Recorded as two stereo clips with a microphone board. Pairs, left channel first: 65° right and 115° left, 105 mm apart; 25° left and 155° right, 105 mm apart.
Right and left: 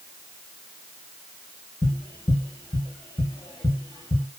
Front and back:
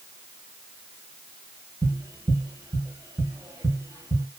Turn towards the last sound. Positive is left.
turn(degrees=-110)